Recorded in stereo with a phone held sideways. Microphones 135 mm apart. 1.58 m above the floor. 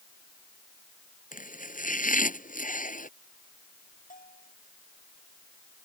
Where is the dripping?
No dripping in this recording.